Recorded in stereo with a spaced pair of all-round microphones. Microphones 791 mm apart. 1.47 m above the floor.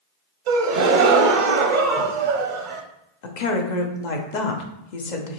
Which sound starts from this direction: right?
A gasp, at 0.5 s.